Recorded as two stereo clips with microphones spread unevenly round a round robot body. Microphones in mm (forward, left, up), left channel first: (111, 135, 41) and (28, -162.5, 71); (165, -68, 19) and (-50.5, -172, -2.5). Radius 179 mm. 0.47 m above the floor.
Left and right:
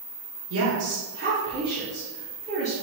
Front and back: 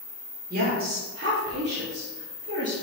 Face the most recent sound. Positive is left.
turn(degrees=155)